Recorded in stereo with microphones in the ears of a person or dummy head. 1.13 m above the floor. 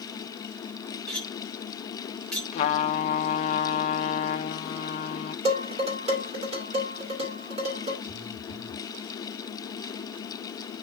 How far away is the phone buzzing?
About 2 m.